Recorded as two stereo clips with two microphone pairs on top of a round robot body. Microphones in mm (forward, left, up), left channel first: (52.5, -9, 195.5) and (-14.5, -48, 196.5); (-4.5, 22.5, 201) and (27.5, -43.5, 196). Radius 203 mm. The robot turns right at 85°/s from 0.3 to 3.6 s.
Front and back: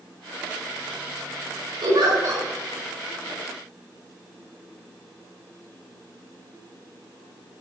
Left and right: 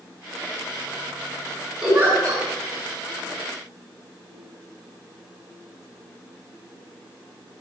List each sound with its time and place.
1.8 s a giggle: 145° right, 6 m; by 2.4 s 95° right, 6 m